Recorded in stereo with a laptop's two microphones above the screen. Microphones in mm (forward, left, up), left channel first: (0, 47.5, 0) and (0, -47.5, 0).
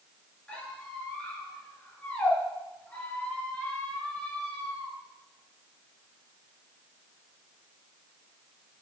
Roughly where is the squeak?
Centre.